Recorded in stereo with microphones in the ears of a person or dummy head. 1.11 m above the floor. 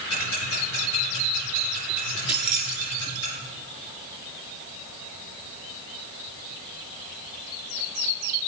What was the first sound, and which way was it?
Ticking, 80° left.